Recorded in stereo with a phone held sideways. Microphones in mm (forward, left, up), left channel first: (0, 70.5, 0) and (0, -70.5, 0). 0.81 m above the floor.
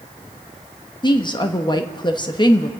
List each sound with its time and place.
1.0 s a woman speaking: 30° left (ahead or behind), 1.2 m